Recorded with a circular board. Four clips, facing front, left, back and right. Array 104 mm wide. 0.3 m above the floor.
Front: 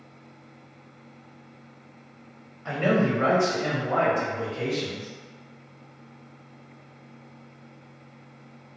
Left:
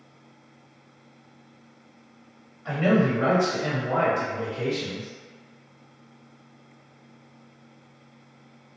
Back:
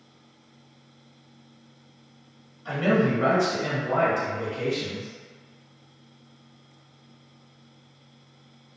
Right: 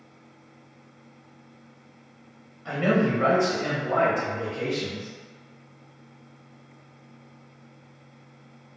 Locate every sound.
2.6 s a man speaking: straight ahead, 1.3 m; by 5.1 s 60° right, 1.8 m